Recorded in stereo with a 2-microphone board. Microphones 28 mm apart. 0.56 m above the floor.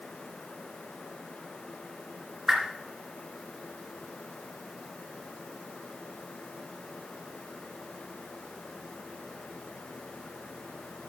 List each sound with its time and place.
2.5 s a whoosh: 15° right (ahead or behind), 3 m